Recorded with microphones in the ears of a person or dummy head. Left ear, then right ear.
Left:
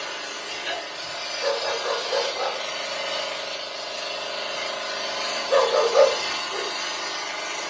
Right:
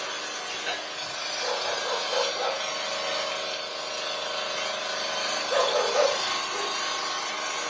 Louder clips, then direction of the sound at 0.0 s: Left 1 dB; 10° right (ahead or behind).